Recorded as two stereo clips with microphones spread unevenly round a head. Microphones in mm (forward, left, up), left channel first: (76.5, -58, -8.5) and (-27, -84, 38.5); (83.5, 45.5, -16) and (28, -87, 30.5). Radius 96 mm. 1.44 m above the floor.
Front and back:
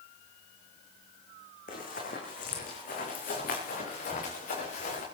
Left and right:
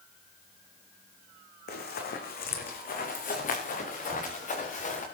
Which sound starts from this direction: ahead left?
Running footsteps, at 1.7 s.